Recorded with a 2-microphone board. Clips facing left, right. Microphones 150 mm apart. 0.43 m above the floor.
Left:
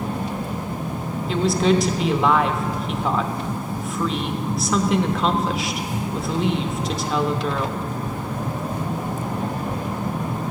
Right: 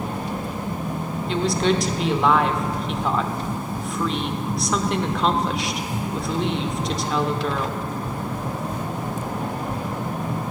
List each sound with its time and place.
1.3 s a woman speaking: centre (ahead or behind), 0.7 m